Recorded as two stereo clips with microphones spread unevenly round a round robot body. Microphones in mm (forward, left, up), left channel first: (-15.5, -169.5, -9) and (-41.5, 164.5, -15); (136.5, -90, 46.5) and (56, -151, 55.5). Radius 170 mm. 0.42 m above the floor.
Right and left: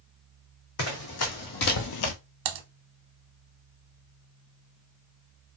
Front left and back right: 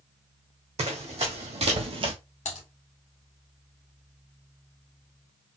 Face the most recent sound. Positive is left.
turn(degrees=55)